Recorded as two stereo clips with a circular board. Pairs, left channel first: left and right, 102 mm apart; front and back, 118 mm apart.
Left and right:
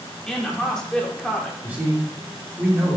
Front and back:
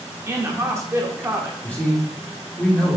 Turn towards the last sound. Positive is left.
turn(degrees=-55)